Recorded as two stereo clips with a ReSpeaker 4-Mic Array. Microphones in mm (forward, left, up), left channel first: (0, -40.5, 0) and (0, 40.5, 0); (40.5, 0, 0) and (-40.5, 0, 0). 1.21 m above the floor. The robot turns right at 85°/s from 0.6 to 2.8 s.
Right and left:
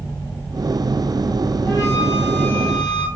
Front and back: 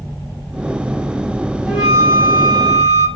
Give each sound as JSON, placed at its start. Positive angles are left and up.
{"t": 1.7, "sound": "a flute", "azimuth_deg": -105, "distance_m": 1.2}